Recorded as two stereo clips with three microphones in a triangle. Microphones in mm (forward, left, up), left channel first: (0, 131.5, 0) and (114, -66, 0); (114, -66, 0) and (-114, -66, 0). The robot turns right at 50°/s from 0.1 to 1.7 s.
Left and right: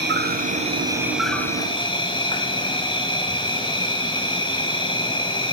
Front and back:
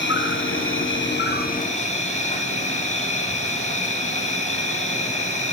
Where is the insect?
25° right, 1.0 m; by 5.5 s 55° left, 1.0 m.